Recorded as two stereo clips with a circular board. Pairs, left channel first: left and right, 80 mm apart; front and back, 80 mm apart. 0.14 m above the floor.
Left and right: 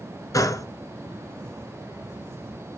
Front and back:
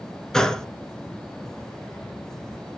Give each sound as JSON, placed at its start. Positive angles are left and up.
{"t": 0.3, "sound": "a gunshot", "azimuth_deg": 80, "distance_m": 0.6}